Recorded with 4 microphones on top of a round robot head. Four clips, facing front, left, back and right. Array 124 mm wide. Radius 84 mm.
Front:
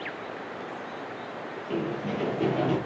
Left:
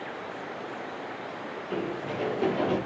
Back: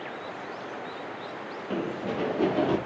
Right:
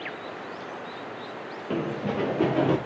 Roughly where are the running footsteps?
Right.